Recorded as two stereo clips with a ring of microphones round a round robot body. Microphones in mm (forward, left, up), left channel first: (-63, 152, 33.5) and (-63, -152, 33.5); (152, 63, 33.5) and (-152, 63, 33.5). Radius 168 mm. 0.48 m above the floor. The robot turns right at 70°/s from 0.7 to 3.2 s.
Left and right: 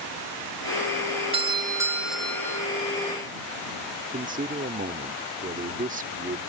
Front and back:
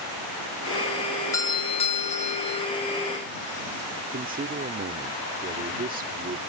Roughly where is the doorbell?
Ahead right.